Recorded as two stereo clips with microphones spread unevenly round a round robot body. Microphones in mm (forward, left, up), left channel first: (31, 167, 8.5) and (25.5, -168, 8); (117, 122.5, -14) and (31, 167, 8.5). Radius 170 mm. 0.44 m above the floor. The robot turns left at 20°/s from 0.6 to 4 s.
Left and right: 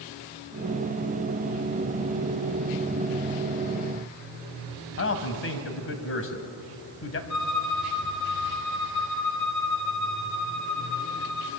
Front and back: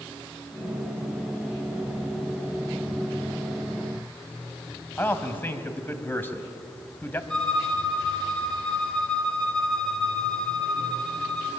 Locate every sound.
5.0 s a man speaking: 40° left, 2.5 m
7.3 s a violin: 55° left, 2.5 m